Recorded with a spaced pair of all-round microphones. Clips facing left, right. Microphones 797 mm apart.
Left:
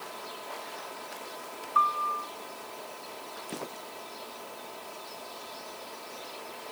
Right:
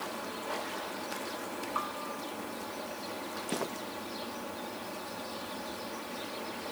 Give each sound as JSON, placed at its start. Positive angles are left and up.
{"t": 0.0, "sound": "a fan", "side_deg": -75}
{"t": 1.8, "sound": "a piano", "side_deg": -5}